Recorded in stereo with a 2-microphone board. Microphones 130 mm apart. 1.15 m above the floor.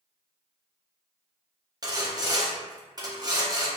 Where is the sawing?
30° right (ahead or behind), 0.7 m.